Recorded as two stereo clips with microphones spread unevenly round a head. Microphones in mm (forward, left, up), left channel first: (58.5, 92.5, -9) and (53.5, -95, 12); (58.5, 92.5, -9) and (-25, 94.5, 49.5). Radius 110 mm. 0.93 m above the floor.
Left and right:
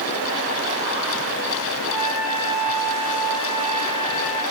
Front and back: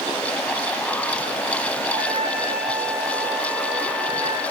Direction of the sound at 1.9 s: 170° right.